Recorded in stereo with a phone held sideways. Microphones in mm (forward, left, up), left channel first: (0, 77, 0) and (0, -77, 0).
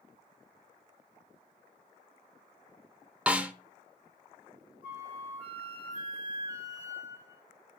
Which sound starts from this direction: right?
A flute, at 4.8 s.